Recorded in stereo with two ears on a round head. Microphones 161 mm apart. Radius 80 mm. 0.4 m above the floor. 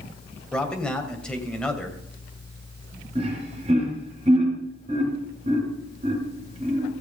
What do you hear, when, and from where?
0.5 s a man speaking: 5° left (ahead or behind), 2.5 m
3.1 s laughter: 35° right (ahead or behind), 5.5 m